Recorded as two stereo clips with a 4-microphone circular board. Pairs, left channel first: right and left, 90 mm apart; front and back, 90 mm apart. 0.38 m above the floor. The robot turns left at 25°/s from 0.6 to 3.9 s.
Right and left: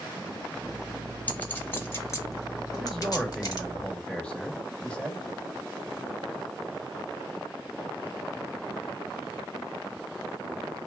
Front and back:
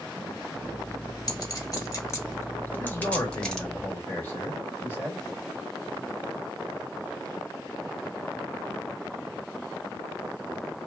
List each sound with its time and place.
1.3 s a clink: 25° right, 0.8 m; by 3.7 s 85° right, 0.8 m
2.7 s a man speaking: straight ahead, 0.9 m; by 5.3 s 30° right, 0.9 m